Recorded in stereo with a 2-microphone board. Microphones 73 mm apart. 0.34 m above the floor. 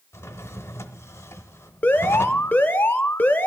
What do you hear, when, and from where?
0.1 s a drawer: 35° left (ahead or behind), 0.7 m
1.8 s an alarm: 25° left (ahead or behind), 0.6 m